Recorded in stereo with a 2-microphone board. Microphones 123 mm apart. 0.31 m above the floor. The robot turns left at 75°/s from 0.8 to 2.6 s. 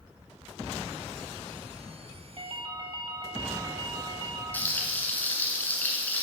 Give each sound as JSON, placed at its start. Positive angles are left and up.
{"t": 2.4, "sound": "a ringtone", "side_deg": -50, "distance_m": 1.0}
{"t": 4.5, "sound": "frying", "side_deg": 15, "distance_m": 1.8}